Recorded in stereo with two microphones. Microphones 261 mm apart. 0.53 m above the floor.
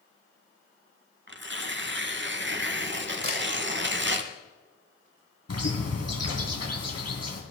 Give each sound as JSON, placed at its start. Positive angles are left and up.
{"t": 1.3, "sound": "tearing paper", "side_deg": -45, "distance_m": 1.2}
{"t": 3.2, "sound": "a camera shutter", "side_deg": -55, "distance_m": 5.5}
{"t": 5.5, "sound": "a bird", "side_deg": 70, "distance_m": 2.5}